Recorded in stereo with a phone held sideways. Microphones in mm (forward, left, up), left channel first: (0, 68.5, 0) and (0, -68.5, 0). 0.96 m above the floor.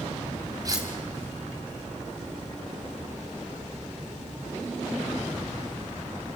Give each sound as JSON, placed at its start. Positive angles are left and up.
{"t": 0.7, "sound": "cutlery clinking", "side_deg": -25, "distance_m": 3.5}